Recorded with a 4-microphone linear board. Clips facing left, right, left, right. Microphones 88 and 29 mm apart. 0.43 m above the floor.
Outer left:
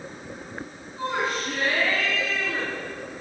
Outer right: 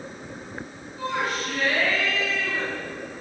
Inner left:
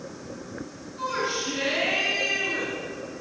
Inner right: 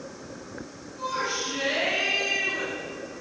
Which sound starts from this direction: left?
A shout, at 1.0 s.